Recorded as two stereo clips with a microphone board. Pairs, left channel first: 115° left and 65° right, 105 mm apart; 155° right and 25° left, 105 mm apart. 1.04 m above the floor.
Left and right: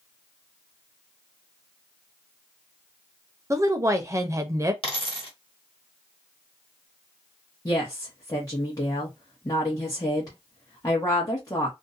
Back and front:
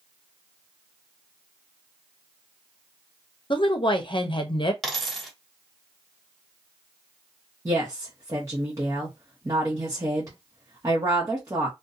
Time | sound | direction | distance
3.5 | a woman speaking | 125° right | 0.6 m
4.8 | a dropped coin | 115° left | 1.3 m
7.7 | a woman speaking | 70° left | 1.0 m